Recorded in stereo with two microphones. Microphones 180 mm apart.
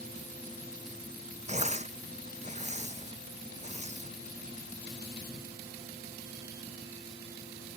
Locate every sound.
1.5 s tearing paper: 40° right (ahead or behind)